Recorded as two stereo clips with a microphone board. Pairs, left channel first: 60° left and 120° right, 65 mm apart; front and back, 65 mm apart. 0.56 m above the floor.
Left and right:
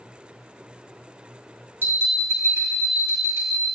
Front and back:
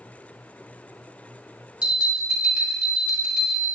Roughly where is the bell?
Behind right.